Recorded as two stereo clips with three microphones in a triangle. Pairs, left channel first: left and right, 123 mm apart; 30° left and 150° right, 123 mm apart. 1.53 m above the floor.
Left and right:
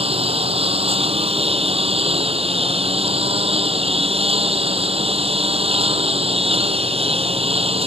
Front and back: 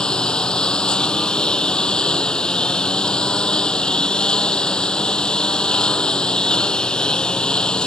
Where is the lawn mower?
55° right.